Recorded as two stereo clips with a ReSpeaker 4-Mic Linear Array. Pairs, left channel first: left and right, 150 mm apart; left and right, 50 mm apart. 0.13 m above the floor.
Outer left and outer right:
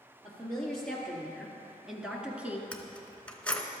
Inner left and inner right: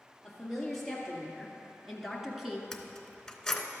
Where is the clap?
I don't hear a clap.